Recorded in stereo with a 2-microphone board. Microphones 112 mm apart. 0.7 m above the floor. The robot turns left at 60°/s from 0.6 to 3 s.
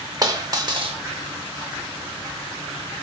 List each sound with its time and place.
0.2 s a dropped coin: 35° right (ahead or behind), 0.6 m; by 1.0 s 55° right (ahead or behind), 0.6 m